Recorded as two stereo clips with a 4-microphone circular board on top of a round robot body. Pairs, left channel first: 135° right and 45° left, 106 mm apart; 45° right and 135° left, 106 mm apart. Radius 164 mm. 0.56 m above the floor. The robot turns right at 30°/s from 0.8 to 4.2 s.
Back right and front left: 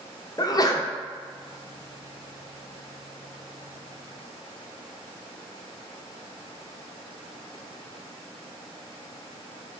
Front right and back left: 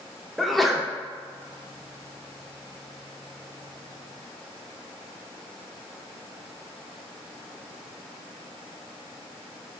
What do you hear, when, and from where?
0.4 s a sneeze: 130° right, 0.6 m